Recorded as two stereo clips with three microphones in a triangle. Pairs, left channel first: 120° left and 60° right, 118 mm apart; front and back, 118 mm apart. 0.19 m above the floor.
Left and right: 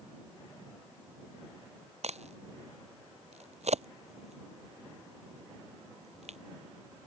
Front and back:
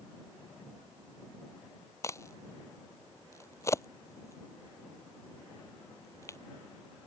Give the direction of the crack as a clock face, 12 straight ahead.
2 o'clock.